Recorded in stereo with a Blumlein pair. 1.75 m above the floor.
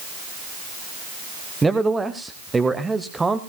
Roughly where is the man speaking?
Ahead.